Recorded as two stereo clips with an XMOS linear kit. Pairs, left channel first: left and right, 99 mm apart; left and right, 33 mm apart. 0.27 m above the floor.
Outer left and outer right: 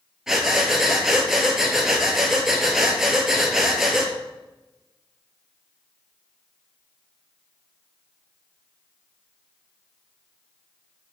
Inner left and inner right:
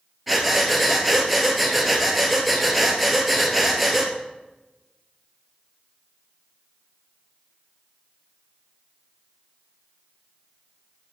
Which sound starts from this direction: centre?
Breathing, at 0.3 s.